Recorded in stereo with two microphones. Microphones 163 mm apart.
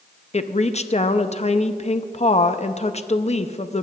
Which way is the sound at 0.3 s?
40° left (ahead or behind).